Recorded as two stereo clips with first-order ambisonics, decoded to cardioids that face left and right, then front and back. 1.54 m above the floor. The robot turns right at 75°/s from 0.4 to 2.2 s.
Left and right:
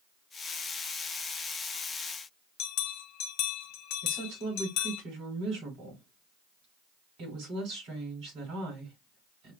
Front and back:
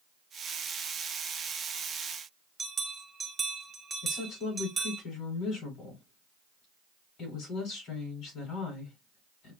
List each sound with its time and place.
2.6 s a bell: 105° left, 0.6 m
4.0 s a woman speaking: 50° right, 4.5 m